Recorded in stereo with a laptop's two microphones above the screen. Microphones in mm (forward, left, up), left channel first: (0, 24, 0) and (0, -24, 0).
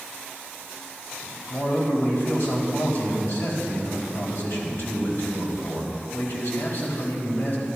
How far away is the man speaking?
About 4.5 m.